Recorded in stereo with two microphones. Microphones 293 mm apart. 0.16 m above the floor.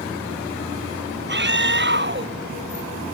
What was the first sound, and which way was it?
A scream, 35° right (ahead or behind).